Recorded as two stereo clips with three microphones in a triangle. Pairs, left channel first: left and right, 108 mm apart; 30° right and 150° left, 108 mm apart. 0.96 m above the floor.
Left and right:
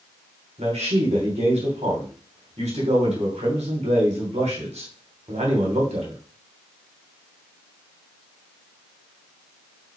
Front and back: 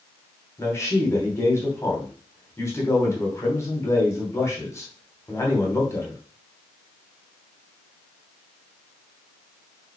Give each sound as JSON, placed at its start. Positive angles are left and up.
{"t": 0.6, "sound": "a man speaking", "azimuth_deg": -95, "distance_m": 3.0}